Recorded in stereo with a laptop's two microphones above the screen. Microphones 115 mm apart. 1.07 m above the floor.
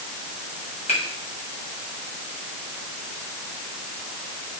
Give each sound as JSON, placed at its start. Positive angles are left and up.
{"t": 0.9, "sound": "a finger snap", "side_deg": 75, "distance_m": 4.5}